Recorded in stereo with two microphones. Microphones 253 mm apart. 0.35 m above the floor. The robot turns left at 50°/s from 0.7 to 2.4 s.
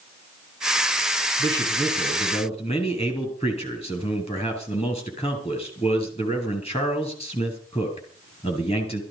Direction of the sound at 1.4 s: 155° right.